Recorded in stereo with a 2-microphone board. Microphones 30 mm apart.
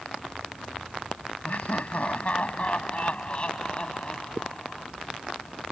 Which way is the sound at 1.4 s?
50° left (ahead or behind).